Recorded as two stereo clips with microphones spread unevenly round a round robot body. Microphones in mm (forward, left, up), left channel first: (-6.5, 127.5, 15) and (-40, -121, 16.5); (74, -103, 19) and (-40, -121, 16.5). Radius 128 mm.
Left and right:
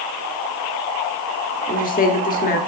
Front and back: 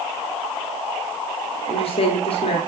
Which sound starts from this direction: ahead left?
A woman speaking, at 1.7 s.